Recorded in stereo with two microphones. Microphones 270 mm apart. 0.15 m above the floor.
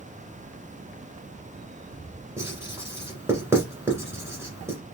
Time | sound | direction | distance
2.4 | writing | 10° right (ahead or behind) | 1.7 m